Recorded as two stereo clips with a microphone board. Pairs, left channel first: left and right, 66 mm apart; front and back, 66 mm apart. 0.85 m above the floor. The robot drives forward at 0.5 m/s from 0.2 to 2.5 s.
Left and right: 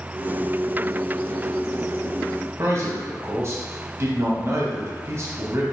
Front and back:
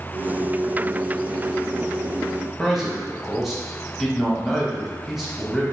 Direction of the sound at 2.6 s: 90° right.